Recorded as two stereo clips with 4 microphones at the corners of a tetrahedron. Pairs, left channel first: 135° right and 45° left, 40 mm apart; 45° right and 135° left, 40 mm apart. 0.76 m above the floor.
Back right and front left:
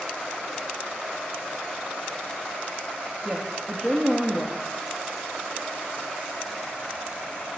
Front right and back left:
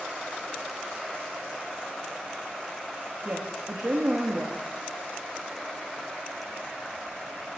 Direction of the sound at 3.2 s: 130° left.